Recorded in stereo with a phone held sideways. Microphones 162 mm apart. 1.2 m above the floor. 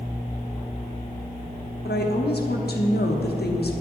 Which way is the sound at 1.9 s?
80° left.